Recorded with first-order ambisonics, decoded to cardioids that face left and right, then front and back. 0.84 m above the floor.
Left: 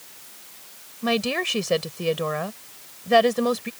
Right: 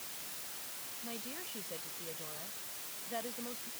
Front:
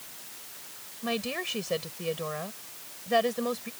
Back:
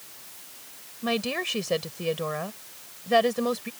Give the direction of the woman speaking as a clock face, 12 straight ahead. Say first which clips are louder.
Left 24 dB, back 4 dB; 8 o'clock.